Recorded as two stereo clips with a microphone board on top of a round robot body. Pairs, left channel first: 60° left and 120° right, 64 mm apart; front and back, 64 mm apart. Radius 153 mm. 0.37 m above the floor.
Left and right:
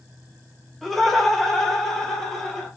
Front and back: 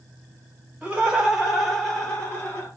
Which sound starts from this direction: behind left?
Laughter, at 0.8 s.